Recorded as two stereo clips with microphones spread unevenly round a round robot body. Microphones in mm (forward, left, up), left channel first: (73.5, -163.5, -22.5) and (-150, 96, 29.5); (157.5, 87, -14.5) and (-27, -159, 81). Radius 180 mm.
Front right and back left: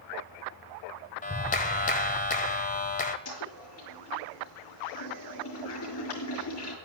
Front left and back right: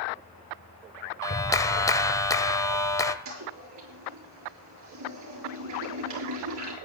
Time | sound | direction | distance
1.2 | a clap | straight ahead | 1.0 m
3.2 | a toilet flushing | 90° right | 8.5 m